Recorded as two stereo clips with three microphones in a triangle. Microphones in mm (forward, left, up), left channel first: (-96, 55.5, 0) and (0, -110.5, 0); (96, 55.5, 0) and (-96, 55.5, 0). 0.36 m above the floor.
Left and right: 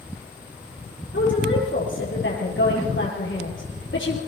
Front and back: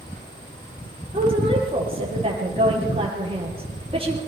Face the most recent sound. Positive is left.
turn(degrees=120)